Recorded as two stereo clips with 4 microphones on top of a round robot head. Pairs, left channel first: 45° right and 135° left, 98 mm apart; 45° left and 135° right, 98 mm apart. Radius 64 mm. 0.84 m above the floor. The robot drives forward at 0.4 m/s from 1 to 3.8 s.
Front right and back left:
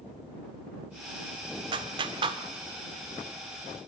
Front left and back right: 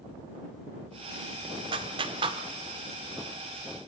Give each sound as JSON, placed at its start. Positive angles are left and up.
{"t": 1.7, "sound": "a clap", "azimuth_deg": 180, "distance_m": 1.4}